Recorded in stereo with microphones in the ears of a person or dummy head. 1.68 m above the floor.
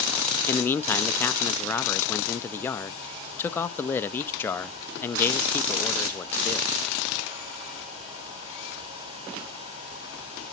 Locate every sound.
0.5 s a man speaking: 15° left (ahead or behind), 0.6 m